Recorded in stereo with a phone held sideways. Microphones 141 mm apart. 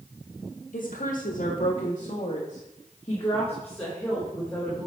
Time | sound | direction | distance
0.7 | a woman speaking | 70° left (ahead or behind) | 1.9 m